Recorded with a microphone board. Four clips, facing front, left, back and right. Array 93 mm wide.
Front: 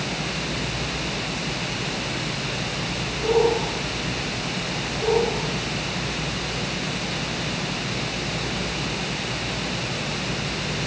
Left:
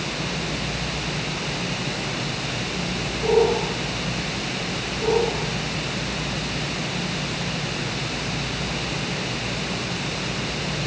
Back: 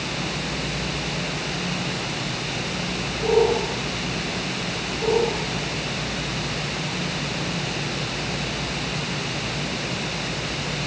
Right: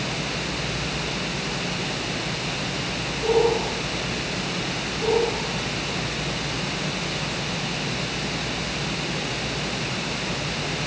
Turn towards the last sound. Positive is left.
No sound to turn to.